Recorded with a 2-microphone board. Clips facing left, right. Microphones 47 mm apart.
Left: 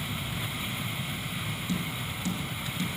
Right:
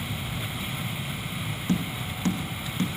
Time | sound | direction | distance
1.7 | tapping | 55° right (ahead or behind) | 3 m